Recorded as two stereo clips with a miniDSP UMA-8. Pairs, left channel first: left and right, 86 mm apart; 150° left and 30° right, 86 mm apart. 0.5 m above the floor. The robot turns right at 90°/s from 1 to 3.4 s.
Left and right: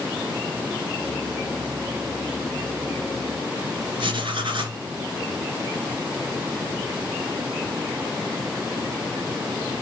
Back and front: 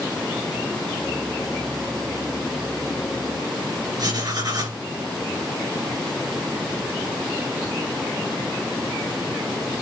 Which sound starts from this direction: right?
Writing, at 4.0 s.